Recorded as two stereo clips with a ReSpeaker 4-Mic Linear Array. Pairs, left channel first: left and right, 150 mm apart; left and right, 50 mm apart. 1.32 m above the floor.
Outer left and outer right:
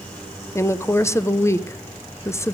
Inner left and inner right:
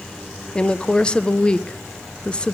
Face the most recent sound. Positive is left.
turn(degrees=20)  # may be behind; listen again after turning